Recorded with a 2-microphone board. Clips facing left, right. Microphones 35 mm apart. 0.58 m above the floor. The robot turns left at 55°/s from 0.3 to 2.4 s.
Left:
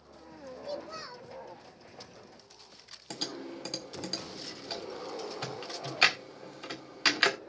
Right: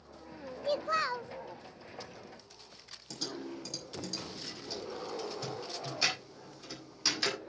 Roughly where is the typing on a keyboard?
Left.